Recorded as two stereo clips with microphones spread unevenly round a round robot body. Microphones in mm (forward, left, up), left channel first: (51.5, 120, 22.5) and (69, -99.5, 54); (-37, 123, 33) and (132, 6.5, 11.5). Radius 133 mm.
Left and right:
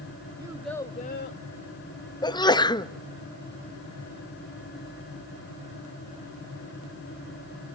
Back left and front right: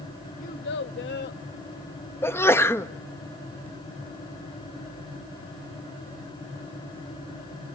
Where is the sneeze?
65° left, 1.0 m.